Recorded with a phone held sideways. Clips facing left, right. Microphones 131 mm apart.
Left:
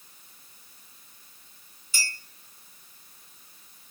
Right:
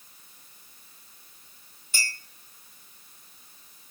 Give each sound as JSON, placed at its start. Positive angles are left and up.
{"t": 1.9, "sound": "a clink", "side_deg": -55, "distance_m": 0.9}